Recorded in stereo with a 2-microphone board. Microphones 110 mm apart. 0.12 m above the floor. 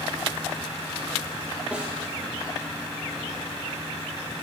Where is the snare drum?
10° right (ahead or behind), 3.5 m.